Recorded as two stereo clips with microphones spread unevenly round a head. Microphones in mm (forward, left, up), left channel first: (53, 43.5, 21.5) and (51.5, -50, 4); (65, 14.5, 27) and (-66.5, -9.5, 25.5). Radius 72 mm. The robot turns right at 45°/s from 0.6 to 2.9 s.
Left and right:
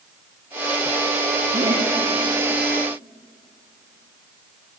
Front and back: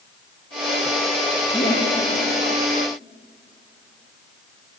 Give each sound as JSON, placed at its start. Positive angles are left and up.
{"t": 1.5, "sound": "laughter", "azimuth_deg": -45, "distance_m": 1.6}